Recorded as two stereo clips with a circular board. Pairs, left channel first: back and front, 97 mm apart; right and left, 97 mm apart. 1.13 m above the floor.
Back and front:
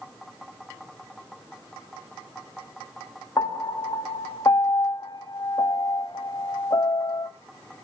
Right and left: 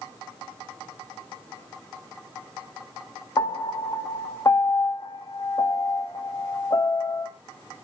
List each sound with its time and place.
3.4 s a piano: 135° right, 0.7 m